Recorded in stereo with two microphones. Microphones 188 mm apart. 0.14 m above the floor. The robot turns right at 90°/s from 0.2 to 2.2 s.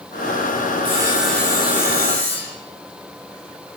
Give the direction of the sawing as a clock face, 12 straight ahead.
1 o'clock.